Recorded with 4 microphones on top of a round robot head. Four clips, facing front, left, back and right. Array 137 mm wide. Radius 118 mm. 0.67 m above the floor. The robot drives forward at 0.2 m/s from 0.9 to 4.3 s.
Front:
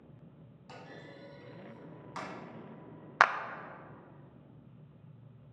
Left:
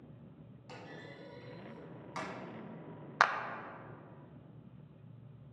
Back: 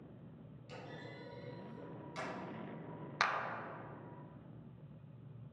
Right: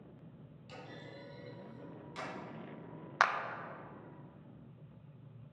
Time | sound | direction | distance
0.7 | a clunk | 40° left | 2.0 m
3.2 | a clap | 5° left | 0.6 m